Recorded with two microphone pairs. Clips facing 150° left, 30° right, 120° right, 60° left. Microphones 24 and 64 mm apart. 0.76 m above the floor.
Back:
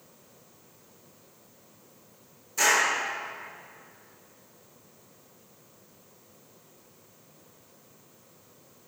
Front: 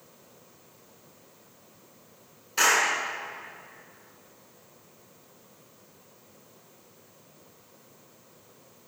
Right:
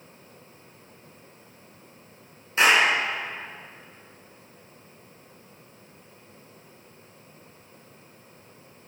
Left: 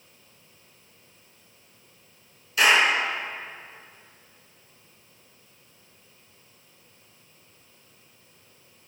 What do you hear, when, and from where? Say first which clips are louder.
2.6 s a clap: front 1 dB, even; 65° right, 6 m